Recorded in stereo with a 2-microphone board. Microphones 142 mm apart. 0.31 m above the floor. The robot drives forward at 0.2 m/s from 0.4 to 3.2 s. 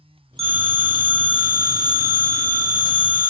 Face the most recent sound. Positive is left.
turn(degrees=-40)  # may be behind; listen again after turning